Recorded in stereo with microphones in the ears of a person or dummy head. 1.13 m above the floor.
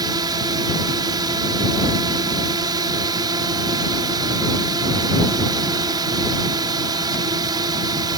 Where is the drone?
25° right (ahead or behind).